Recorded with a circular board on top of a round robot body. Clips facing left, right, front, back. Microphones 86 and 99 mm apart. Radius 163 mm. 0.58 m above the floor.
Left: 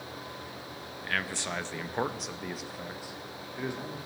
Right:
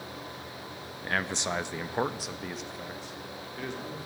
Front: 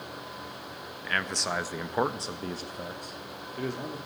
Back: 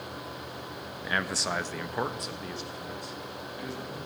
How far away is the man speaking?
About 0.9 m.